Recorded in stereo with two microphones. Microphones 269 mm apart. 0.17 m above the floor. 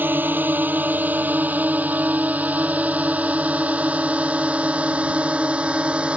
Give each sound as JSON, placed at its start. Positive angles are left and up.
{"t": 0.0, "sound": "a drone", "side_deg": -5}